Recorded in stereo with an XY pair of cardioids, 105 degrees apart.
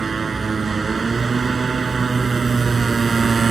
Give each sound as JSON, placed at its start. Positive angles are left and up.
{"t": 0.0, "sound": "a motorcycle", "azimuth_deg": -30}